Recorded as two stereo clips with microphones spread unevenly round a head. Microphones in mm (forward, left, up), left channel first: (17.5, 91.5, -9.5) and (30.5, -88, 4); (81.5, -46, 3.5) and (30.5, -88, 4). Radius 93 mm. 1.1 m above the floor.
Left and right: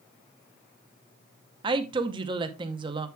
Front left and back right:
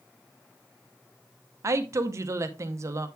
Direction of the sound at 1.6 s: 145° right.